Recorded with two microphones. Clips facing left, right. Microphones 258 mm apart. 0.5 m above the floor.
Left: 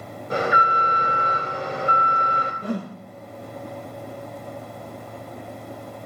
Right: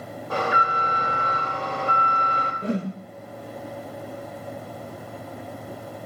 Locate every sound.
0.3 s an alarm: 20° left (ahead or behind), 2.0 m
2.6 s a whoosh: 25° right (ahead or behind), 0.7 m